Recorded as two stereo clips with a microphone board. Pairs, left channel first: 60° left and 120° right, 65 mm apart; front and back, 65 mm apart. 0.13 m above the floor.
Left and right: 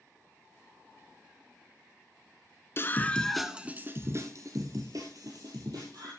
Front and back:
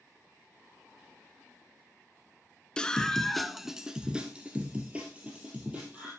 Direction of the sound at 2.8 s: 65° left.